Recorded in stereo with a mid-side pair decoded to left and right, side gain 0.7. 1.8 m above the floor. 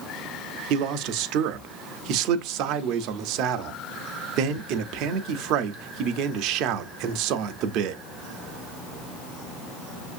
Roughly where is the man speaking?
Ahead right.